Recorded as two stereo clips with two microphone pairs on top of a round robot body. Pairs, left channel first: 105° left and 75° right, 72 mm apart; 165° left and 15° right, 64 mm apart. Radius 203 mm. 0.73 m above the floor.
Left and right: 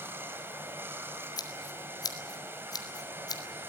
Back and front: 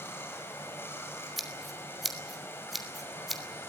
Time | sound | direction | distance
0.0 | running water | 135° right | 2.5 m
1.4 | scissors | 75° left | 3 m